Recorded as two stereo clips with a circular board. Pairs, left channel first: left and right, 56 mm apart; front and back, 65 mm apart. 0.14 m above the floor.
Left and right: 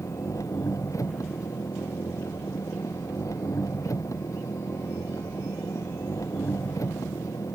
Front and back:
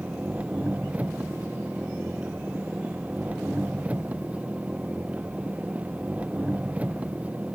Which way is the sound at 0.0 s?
110° left.